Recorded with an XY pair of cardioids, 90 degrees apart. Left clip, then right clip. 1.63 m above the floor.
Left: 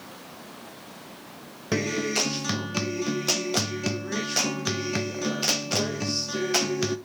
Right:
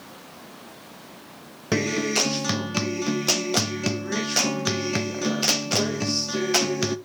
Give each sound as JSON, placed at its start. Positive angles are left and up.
{"t": 1.7, "sound": "a guitar", "azimuth_deg": -25, "distance_m": 1.1}